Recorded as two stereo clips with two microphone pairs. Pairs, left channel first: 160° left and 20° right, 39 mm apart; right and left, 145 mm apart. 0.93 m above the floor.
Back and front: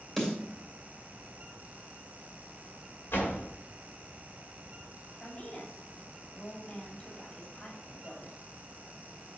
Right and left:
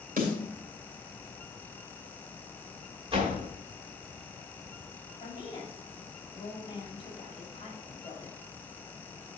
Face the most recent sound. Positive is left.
turn(degrees=-145)